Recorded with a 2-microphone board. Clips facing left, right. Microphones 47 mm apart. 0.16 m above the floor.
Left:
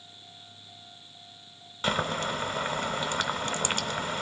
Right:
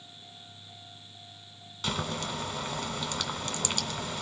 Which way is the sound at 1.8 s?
25° left (ahead or behind).